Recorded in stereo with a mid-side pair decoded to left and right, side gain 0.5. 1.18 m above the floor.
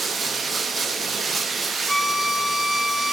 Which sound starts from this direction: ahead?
A violin, at 1.9 s.